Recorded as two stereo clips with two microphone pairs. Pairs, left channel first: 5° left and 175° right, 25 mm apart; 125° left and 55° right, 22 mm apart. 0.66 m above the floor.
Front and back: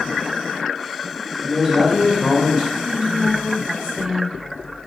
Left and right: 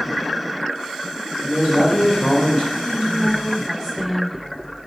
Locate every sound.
1.4 s a man speaking: 160° left, 3.5 m; by 2.6 s 145° left, 3.5 m
2.8 s a woman speaking: 170° right, 1.5 m